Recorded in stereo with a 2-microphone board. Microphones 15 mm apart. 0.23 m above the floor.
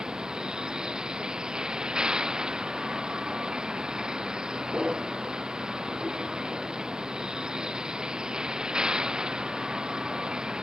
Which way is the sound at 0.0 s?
80° right.